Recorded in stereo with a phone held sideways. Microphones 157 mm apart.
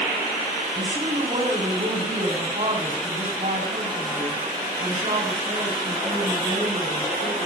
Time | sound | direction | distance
0.7 | a woman speaking | 55° right (ahead or behind) | 4 m